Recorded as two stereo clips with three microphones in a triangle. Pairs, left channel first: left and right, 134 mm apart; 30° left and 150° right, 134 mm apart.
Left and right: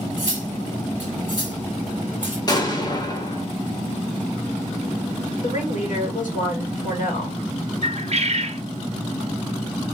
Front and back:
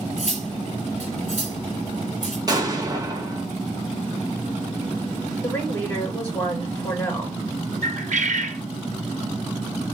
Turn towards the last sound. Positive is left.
turn(degrees=-130)